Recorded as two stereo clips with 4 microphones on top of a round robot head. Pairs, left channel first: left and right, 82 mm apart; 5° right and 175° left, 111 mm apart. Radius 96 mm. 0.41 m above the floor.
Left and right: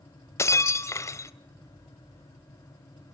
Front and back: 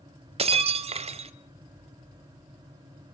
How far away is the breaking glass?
About 0.8 m.